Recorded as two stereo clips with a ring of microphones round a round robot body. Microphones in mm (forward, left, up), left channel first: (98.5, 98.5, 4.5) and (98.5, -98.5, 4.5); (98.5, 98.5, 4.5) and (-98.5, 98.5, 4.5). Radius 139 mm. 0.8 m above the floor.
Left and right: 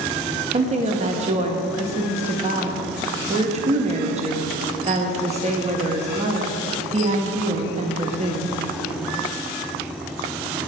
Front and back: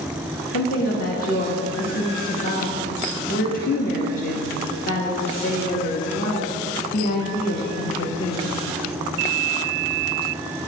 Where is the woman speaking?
40° right, 1.1 m.